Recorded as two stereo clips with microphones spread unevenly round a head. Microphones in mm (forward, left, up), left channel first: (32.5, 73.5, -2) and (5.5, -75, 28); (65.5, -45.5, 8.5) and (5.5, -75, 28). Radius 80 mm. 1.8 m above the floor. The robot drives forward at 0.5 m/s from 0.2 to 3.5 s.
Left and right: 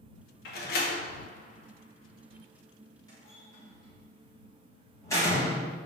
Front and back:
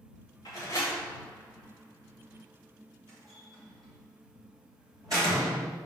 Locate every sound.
0.5 s a door slam: 85° left, 0.9 m; by 5.8 s 155° left, 1.8 m